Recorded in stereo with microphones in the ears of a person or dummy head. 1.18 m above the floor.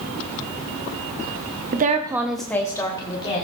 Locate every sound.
1.7 s a woman speaking: 45° right (ahead or behind), 0.8 m; by 3.5 s 30° left (ahead or behind), 2 m